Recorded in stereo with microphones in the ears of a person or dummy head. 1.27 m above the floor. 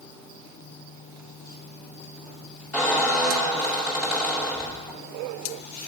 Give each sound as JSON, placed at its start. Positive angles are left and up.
{"t": 2.7, "sound": "a squeak", "side_deg": -10, "distance_m": 2.5}